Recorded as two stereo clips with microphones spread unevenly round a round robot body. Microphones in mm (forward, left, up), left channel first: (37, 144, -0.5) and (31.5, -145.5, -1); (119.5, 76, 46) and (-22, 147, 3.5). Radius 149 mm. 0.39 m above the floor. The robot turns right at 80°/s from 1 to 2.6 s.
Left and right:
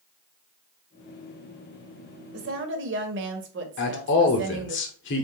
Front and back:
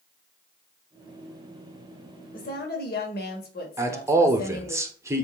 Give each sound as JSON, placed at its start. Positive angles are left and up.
{"t": 2.3, "sound": "a woman speaking", "azimuth_deg": -75, "distance_m": 1.4}
{"t": 3.8, "sound": "a man speaking", "azimuth_deg": 110, "distance_m": 1.2}